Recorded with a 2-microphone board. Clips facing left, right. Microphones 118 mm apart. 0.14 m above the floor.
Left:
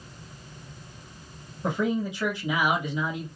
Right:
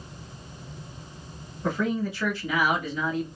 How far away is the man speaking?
About 1.5 m.